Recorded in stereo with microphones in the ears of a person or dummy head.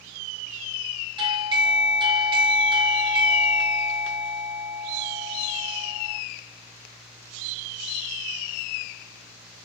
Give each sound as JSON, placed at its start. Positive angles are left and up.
{"t": 1.2, "sound": "a doorbell", "side_deg": -30, "distance_m": 1.3}